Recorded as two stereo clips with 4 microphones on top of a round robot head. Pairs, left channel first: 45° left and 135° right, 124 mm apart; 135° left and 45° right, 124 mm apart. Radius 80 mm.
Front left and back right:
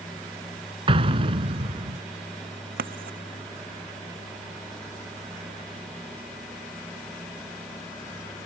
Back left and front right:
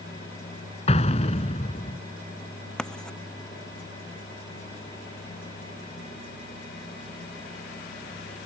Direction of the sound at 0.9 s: 175° left.